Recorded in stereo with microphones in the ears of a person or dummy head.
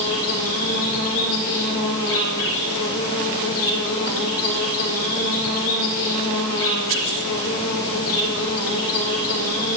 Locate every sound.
0.0 s an insect: 70° left (ahead or behind), 4 m